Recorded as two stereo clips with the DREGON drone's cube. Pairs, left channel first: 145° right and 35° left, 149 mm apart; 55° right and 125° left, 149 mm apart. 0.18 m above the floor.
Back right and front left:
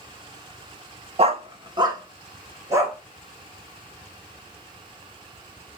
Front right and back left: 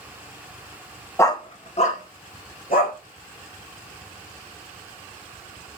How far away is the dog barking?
About 0.6 m.